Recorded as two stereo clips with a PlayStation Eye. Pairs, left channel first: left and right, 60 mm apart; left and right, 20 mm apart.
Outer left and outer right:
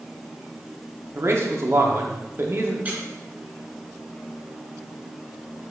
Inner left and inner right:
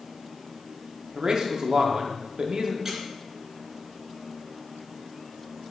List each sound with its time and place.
1.1 s a man speaking: 50° right (ahead or behind), 1.3 m
2.9 s a squeak: 25° right (ahead or behind), 1.8 m